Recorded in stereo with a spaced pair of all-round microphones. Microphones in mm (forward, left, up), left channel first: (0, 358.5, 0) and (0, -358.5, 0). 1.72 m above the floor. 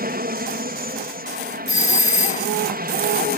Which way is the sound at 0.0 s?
15° right (ahead or behind).